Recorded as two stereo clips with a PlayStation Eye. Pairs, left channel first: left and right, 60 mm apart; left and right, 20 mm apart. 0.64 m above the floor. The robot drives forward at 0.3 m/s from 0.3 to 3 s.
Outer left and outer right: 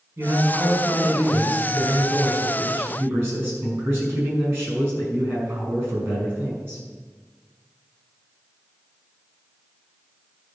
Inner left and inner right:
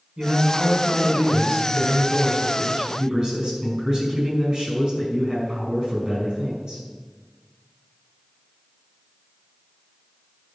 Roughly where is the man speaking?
Right.